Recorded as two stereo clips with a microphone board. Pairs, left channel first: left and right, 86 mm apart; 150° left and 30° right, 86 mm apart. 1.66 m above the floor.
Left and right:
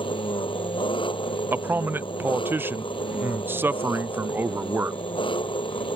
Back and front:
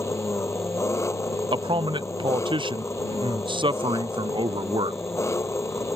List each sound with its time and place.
0.0 s an engine running: 95° left
1.5 s a man speaking: 25° right